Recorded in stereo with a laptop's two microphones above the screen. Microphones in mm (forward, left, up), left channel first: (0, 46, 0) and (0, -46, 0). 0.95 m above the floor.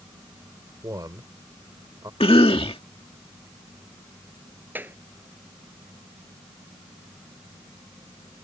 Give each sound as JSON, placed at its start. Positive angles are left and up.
{"t": 0.8, "sound": "a man speaking", "side_deg": -40}
{"t": 2.2, "sound": "a cough", "side_deg": 70}
{"t": 4.8, "sound": "a clap", "side_deg": -20}